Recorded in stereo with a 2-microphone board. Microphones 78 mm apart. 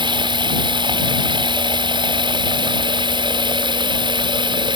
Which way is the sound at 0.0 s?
85° right.